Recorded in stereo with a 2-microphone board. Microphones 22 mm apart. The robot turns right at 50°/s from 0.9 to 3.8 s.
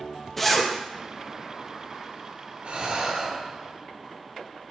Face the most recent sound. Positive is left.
turn(degrees=-10)